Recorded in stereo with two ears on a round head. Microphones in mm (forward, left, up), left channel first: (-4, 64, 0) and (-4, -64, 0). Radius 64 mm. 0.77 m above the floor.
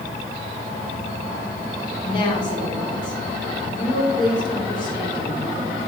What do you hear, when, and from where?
2.0 s a woman speaking: 35° left (ahead or behind), 2.5 m